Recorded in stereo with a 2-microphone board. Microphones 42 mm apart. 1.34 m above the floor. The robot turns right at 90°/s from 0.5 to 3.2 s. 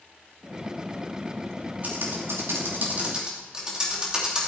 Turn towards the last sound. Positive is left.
turn(degrees=-20)  # may be behind; listen again after turning